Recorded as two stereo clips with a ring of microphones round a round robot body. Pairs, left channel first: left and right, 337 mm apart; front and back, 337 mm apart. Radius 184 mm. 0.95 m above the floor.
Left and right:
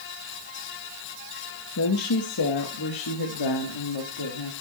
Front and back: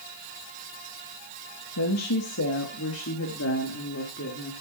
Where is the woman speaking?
45° left, 1.0 m; by 4.5 s 60° left, 2.5 m.